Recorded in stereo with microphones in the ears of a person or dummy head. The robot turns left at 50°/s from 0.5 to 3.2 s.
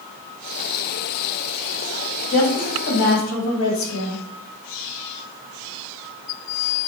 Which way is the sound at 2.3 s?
145° left.